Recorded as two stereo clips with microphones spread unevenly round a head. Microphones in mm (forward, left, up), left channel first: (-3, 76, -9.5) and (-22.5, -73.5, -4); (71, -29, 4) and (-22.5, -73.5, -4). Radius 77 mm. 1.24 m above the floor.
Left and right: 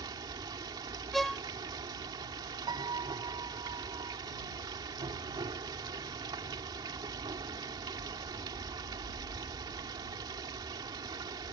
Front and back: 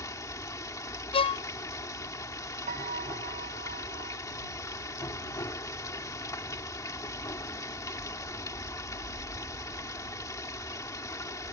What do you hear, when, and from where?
0.0 s running water: 30° right
1.1 s a violin: 5° right
2.7 s a piano: 160° right